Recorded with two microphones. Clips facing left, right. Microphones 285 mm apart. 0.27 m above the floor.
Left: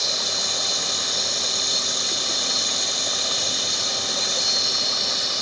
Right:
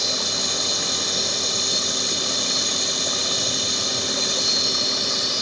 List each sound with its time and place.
0.0 s an insect: 70° right (ahead or behind), 1.8 m